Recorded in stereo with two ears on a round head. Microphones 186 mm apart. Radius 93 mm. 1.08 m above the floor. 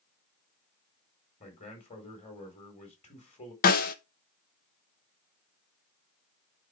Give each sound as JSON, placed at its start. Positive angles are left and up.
{"t": 1.4, "sound": "a man speaking", "side_deg": 35, "distance_m": 4.5}
{"t": 3.6, "sound": "a snare drum", "side_deg": 45, "distance_m": 0.9}